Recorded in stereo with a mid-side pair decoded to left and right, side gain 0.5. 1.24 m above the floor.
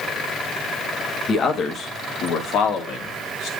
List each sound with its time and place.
1.3 s a man speaking: 50° left, 1.7 m; by 3.5 s 75° left, 2.5 m